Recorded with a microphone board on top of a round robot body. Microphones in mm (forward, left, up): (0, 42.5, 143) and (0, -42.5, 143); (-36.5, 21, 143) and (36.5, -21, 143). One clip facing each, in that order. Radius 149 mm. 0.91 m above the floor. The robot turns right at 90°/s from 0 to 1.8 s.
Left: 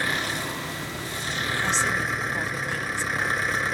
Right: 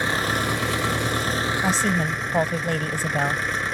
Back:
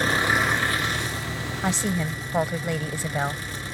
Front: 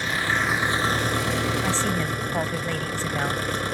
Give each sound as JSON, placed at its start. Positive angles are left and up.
{"t": 0.0, "sound": "an engine running", "azimuth_deg": -160}
{"t": 1.6, "sound": "a woman speaking", "azimuth_deg": -145}